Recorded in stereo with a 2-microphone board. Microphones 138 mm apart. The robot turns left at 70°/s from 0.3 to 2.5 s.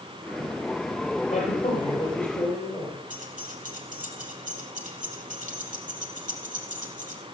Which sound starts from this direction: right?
Keys jangling, at 3.1 s.